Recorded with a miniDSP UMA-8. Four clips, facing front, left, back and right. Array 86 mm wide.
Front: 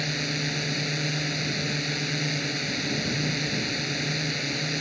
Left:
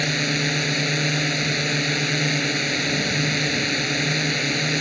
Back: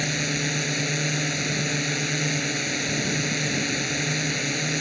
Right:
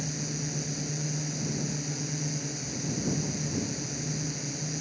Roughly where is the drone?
Left.